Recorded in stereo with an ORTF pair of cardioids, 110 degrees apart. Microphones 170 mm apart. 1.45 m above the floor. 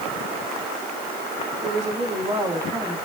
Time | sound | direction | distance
1.6 | a woman speaking | 45° right | 3 m